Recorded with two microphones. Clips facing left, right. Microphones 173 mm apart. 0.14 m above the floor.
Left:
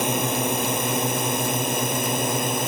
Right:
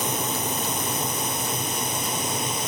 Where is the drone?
65° left (ahead or behind); by 2.7 s 60° left (ahead or behind).